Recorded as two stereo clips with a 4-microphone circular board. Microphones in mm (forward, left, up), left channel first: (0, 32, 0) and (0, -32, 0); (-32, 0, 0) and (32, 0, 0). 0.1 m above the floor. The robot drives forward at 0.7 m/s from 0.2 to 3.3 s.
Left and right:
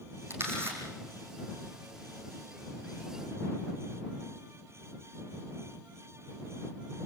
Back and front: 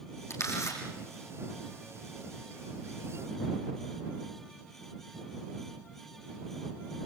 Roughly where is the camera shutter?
Behind right.